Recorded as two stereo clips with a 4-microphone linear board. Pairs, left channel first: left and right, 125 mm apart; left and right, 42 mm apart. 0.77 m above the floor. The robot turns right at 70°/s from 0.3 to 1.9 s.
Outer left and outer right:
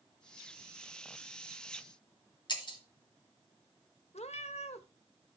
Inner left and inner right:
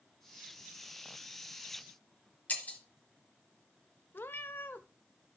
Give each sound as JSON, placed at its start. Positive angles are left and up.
{"t": 2.5, "sound": "breaking glass", "side_deg": 40, "distance_m": 1.5}
{"t": 4.1, "sound": "a cat meowing", "side_deg": 60, "distance_m": 0.6}